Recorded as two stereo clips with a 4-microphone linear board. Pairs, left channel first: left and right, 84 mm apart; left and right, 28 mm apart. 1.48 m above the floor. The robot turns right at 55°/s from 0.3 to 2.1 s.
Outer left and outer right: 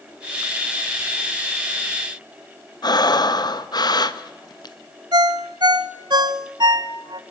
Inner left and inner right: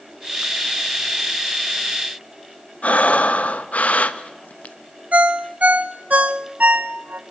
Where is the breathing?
55° left (ahead or behind), 1.1 m.